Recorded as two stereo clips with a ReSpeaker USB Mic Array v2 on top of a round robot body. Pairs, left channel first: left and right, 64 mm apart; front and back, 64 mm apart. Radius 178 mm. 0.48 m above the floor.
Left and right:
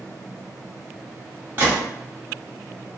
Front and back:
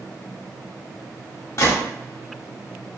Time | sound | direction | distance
1.6 | a gunshot | 35° right | 1.3 m